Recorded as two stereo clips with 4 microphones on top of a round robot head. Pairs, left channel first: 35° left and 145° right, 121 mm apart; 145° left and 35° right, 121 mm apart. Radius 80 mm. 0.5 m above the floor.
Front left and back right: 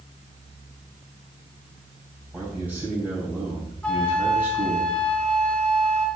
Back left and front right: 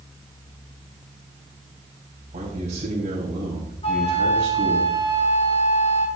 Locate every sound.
2.3 s a man speaking: 70° right, 3.5 m
3.8 s a flute: 115° left, 1.8 m